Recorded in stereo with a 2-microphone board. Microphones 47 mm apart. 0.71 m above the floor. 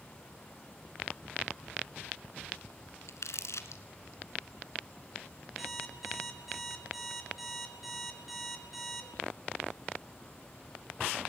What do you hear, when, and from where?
3.1 s crumpling: 80° left, 2 m
5.6 s an alarm clock: centre (ahead or behind), 5 m